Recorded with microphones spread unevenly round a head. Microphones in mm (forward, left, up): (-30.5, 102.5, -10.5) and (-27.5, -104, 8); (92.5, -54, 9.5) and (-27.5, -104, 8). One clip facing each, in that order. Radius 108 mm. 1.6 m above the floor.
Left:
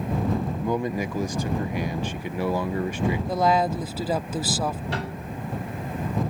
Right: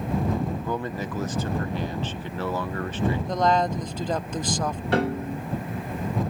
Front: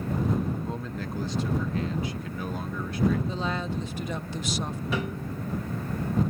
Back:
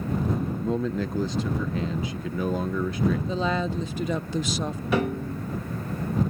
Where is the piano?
125° right.